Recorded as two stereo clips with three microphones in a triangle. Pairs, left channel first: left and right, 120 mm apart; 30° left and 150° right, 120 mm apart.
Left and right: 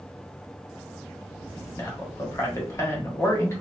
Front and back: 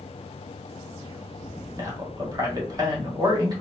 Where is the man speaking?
155° left, 1.3 m.